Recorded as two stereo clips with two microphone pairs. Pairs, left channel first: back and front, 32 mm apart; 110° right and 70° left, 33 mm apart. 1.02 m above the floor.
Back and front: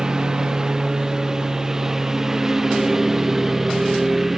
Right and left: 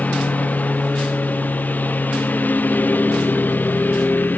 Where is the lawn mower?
70° right; by 4.4 s 85° right.